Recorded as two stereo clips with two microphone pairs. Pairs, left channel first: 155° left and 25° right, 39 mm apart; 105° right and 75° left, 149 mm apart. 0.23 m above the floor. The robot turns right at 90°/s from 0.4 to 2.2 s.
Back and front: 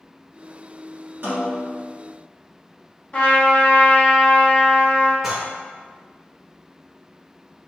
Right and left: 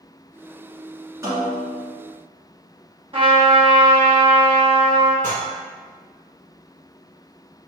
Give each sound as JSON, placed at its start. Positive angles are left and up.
{"t": 1.2, "sound": "a snare drum", "azimuth_deg": 5, "distance_m": 1.4}
{"t": 3.1, "sound": "a trumpet", "azimuth_deg": 110, "distance_m": 1.3}
{"t": 5.2, "sound": "dishes clattering", "azimuth_deg": 60, "distance_m": 1.8}